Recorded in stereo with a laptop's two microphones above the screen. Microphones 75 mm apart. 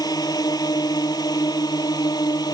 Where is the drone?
55° left (ahead or behind); by 2.5 s 60° left (ahead or behind).